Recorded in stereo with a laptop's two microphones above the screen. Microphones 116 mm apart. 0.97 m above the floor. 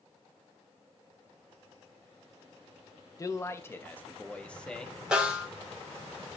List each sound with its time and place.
3.2 s a man speaking: 30° left (ahead or behind), 1.1 m; by 5.0 s 5° left (ahead or behind), 1.9 m
5.1 s a snare drum: 10° right (ahead or behind), 3 m